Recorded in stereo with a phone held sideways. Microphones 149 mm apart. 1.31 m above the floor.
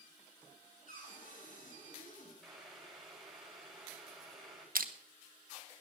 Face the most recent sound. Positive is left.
turn(degrees=-85)